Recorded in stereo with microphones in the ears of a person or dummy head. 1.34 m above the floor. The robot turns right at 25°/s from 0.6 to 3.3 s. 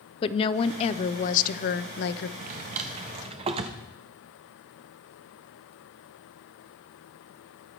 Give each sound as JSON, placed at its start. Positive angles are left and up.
{"t": 0.2, "sound": "a woman speaking", "azimuth_deg": 35, "distance_m": 0.6}
{"t": 2.4, "sound": "a drawer", "side_deg": -45, "distance_m": 0.8}